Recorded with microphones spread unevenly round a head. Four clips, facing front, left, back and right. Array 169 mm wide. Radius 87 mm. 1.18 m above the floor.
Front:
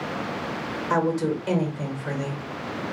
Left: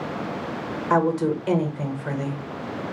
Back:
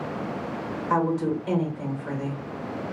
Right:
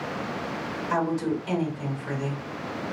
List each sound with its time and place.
0.9 s a woman speaking: 60° left, 1.2 m